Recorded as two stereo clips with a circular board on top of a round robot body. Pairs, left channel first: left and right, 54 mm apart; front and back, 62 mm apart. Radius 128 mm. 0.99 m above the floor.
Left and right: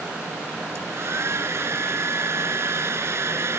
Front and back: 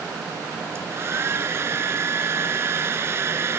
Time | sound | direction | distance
0.8 | a hair dryer | 130° right | ?